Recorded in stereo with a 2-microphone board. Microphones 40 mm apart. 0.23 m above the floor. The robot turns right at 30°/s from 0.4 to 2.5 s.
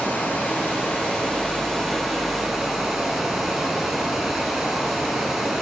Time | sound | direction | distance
0.0 | running water | 130° left | 1.7 m